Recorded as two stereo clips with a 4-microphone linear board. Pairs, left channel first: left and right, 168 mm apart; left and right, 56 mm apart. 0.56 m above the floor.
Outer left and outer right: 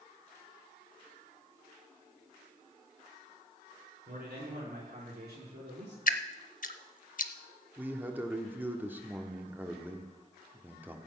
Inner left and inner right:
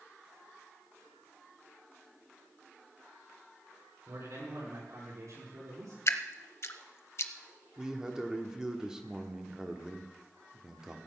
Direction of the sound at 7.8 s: 10° right (ahead or behind).